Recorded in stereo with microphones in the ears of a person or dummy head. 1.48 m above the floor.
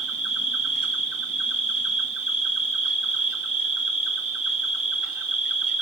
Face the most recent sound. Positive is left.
turn(degrees=-75)  # may be behind; listen again after turning